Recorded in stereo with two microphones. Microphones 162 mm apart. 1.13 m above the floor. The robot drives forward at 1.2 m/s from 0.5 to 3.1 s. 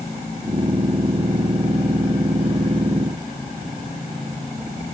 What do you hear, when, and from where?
Only background noise.